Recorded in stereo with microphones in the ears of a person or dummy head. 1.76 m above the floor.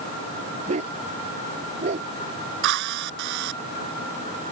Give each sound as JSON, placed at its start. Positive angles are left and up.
{"t": 0.7, "sound": "a dog barking", "side_deg": -30}
{"t": 2.6, "sound": "a drill", "side_deg": -70}